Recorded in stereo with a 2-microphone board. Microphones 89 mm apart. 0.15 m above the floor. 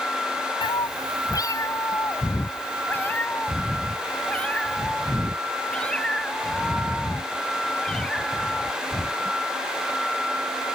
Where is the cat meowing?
60° left (ahead or behind); by 9.4 s 5° left (ahead or behind).